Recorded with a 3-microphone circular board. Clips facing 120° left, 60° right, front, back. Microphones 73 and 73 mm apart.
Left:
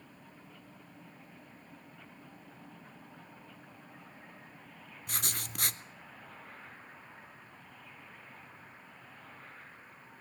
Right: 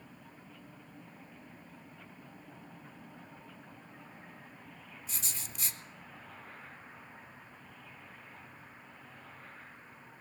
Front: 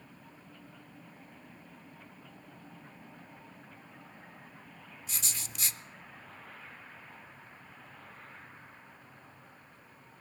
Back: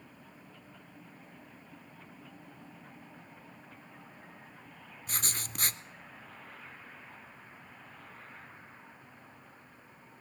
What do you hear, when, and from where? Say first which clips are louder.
5.1 s writing: left 7 dB, back 5 dB; 145° left, 0.5 m